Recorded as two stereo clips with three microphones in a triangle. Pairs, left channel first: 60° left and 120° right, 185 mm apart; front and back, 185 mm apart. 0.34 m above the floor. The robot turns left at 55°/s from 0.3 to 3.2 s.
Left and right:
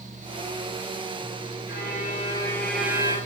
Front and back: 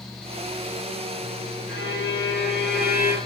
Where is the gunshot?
No gunshot in this recording.